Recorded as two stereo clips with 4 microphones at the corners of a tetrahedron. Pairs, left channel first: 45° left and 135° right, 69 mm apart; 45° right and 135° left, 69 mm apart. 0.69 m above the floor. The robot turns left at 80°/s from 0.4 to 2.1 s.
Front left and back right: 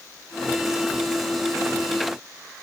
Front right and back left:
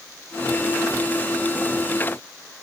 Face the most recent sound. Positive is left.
No sound to turn to.